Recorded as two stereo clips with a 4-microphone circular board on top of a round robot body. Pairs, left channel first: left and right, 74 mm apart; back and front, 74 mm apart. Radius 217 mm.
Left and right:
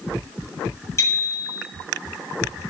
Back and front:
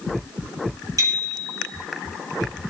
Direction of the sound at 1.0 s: 40° left.